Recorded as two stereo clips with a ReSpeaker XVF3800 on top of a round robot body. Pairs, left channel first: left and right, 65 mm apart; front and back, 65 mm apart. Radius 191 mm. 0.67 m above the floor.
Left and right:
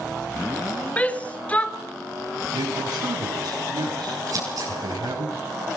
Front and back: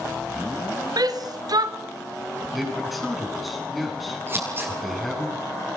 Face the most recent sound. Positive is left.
turn(degrees=-125)